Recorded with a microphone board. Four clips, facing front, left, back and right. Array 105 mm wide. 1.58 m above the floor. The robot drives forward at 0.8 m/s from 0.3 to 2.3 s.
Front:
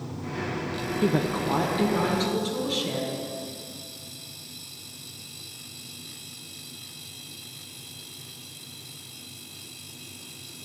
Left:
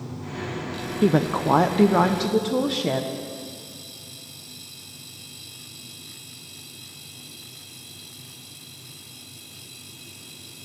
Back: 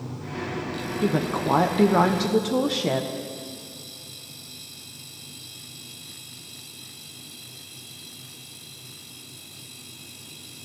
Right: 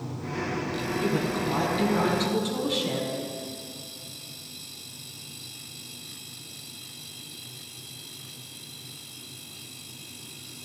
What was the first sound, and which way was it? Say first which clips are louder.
A woman speaking: left 9 dB, back 1 dB; 90° left.